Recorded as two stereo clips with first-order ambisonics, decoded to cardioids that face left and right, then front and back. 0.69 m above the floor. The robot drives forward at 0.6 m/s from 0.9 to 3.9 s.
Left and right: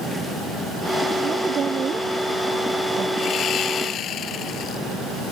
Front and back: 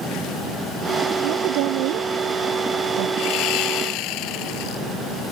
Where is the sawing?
35° left.